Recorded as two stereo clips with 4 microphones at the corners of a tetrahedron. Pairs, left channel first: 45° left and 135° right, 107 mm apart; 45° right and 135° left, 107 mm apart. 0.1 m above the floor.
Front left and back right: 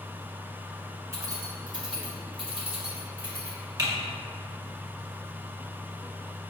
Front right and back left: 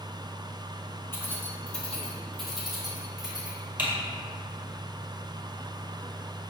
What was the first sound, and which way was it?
Keys jangling, 100° right.